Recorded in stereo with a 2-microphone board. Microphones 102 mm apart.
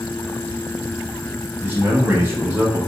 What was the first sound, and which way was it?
A man speaking, 25° right (ahead or behind).